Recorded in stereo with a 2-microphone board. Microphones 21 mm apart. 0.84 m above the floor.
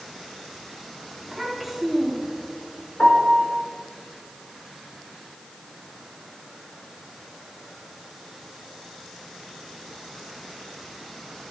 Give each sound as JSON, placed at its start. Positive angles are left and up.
{"t": 1.2, "sound": "a child speaking", "side_deg": 0, "distance_m": 3.5}
{"t": 3.0, "sound": "a piano", "side_deg": 75, "distance_m": 5.5}